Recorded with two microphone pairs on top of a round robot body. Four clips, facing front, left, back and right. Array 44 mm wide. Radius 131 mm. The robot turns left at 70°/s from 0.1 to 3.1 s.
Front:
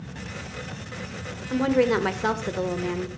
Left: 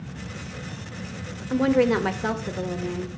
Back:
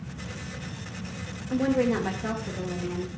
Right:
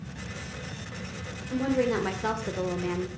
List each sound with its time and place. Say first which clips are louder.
1.5 s a woman speaking: left 6 dB, front 3 dB; 65° left, 1.4 m; by 3.1 s 45° right, 1.4 m